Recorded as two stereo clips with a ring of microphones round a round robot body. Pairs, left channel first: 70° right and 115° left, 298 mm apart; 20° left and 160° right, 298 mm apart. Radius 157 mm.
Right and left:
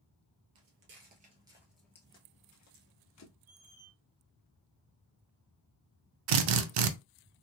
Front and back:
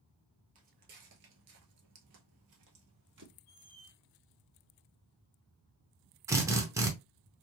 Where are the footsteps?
145° left, 0.9 m; by 3.4 s 110° right, 1.2 m.